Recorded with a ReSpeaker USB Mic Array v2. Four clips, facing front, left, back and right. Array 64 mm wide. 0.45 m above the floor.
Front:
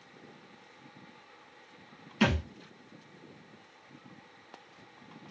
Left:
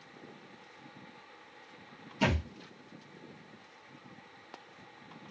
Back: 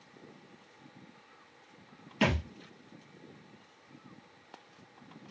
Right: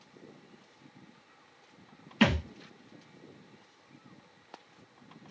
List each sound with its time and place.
2.2 s a thud: 80° right, 1.3 m